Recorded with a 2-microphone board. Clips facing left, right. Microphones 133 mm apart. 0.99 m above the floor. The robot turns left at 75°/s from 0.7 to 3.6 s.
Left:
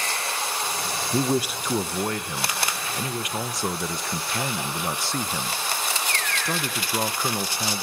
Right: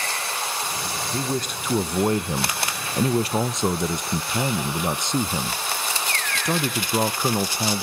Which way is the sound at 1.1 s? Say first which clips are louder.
Left 5 dB; 35° left.